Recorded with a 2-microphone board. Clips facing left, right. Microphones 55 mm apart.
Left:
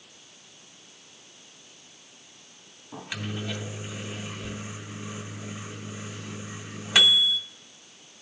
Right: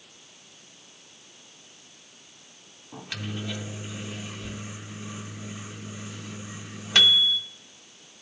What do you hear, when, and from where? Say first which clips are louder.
2.9 s a microwave: left 1 dB; 10° left (ahead or behind), 0.6 m